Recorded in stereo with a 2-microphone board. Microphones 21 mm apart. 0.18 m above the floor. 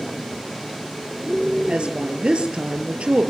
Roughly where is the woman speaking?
Right.